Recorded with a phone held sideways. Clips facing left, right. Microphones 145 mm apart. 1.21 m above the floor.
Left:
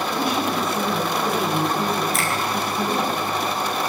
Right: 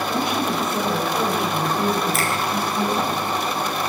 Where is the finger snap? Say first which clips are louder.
Right 1 dB; centre (ahead or behind), 4.5 m.